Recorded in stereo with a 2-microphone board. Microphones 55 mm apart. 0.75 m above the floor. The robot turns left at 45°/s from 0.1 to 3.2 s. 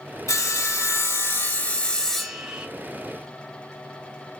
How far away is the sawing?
About 1.1 m.